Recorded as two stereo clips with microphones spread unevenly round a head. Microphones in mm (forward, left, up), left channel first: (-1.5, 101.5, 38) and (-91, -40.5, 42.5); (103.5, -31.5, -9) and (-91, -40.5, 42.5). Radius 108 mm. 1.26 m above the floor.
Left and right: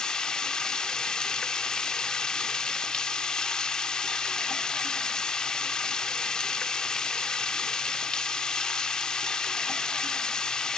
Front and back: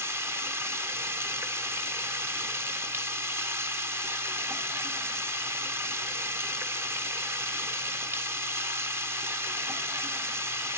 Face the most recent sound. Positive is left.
turn(degrees=145)